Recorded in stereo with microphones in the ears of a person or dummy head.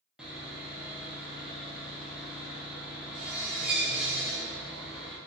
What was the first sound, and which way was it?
Sawing, 5° right (ahead or behind).